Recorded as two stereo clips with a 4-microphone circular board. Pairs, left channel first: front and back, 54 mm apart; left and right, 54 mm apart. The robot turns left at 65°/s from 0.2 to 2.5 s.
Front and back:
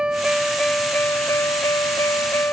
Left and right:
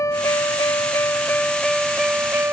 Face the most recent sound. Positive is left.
turn(degrees=-45)